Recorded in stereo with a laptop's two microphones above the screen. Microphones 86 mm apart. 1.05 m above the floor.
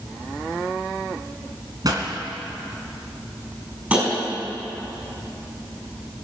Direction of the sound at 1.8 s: 50° right (ahead or behind).